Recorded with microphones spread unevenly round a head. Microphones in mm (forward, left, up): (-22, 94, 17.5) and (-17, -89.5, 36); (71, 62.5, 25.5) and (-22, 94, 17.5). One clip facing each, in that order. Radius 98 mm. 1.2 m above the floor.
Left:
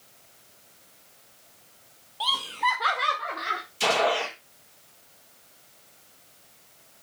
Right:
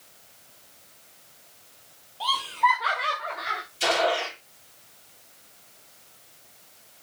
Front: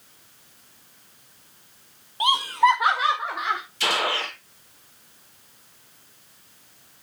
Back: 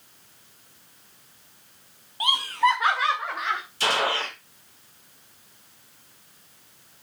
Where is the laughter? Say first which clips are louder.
Right 4 dB, front 3 dB; 50° left, 1.9 m; by 3.6 s 65° left, 3 m.